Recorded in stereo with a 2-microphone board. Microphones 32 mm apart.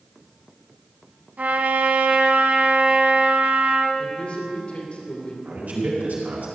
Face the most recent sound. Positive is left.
turn(degrees=-60)  # may be behind; listen again after turning